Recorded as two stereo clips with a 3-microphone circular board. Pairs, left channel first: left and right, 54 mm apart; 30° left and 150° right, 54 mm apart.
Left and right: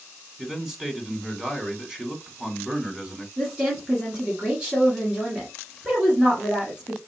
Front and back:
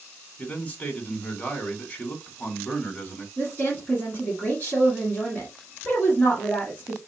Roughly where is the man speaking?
Ahead.